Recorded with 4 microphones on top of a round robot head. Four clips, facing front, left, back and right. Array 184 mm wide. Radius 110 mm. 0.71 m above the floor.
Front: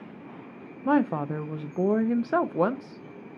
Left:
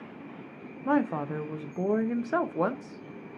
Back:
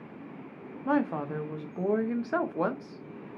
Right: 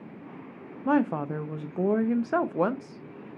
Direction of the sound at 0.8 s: 25° right.